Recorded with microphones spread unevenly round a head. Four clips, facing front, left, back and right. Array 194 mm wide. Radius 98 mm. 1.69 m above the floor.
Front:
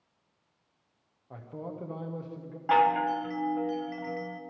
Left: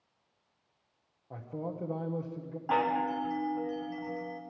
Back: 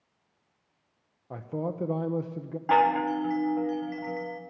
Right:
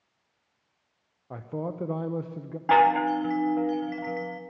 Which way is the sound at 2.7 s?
95° right.